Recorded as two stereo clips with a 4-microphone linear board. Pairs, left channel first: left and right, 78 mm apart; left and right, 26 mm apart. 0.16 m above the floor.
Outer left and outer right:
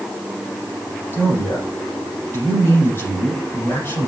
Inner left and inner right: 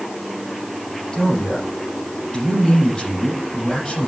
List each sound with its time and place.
1.1 s a man speaking: 30° left (ahead or behind), 7 m